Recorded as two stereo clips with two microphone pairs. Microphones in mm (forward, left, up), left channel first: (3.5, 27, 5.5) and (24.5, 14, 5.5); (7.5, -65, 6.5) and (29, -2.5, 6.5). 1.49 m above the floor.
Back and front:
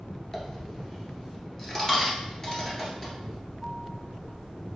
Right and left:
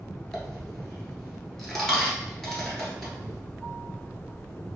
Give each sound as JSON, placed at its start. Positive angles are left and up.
{"t": 0.3, "sound": "a dropped coin", "azimuth_deg": 180, "distance_m": 1.5}